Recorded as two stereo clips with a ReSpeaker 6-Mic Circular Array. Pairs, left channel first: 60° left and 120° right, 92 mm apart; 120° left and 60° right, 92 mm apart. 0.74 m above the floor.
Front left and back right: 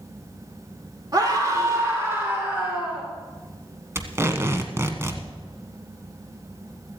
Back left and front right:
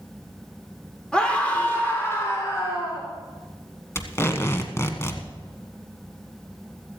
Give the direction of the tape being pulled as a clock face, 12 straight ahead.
6 o'clock.